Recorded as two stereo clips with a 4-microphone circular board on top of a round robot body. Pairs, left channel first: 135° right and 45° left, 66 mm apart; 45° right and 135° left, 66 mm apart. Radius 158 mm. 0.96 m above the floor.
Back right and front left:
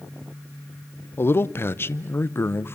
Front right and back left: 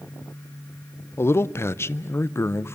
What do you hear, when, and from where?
1.2 s a man speaking: 85° right, 0.9 m